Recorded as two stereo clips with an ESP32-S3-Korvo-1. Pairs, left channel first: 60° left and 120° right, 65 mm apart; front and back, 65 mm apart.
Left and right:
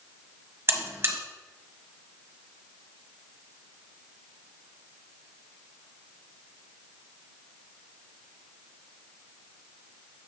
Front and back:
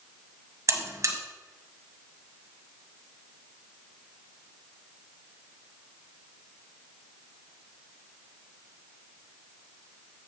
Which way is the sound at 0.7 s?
160° right.